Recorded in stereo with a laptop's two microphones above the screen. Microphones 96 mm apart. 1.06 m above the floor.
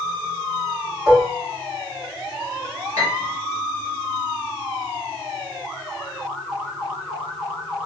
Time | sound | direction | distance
1.1 | dishes clattering | centre (ahead or behind) | 1.9 m
3.0 | a piano | 80° left | 3 m